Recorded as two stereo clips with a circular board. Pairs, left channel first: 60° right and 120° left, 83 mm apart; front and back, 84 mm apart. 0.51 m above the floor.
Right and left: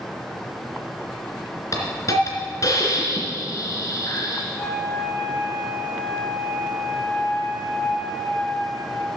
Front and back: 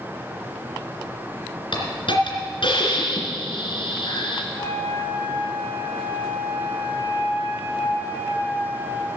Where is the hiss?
10° right, 2.5 m.